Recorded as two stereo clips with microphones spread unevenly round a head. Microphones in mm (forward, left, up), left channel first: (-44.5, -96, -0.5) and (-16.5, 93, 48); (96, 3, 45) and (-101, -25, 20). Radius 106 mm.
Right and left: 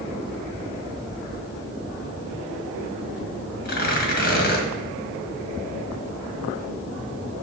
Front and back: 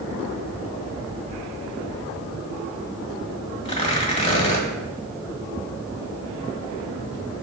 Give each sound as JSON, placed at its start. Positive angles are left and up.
{"t": 3.6, "sound": "tearing paper", "azimuth_deg": -45, "distance_m": 1.5}